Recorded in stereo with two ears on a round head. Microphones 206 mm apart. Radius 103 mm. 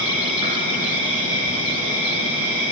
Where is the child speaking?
I don't hear a child speaking.